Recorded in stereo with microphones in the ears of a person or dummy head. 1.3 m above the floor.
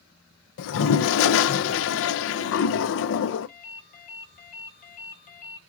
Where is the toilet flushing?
75° left (ahead or behind), 0.6 m.